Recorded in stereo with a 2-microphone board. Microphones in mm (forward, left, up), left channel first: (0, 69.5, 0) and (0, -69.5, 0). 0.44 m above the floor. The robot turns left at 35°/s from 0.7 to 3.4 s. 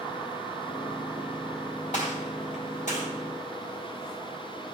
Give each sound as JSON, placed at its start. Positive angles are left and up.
{"t": 1.9, "sound": "a gunshot", "side_deg": 55, "distance_m": 3.0}